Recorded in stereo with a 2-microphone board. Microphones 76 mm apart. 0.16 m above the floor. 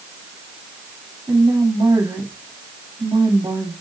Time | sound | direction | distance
1.3 | a woman speaking | 70° right (ahead or behind) | 7.5 m